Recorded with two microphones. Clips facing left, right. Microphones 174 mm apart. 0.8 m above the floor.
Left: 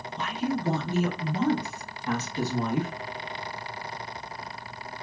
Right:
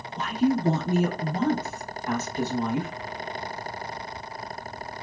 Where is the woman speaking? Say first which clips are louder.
Right 6 dB; 45° right (ahead or behind), 0.9 m; by 2.9 s 50° left (ahead or behind), 1.1 m.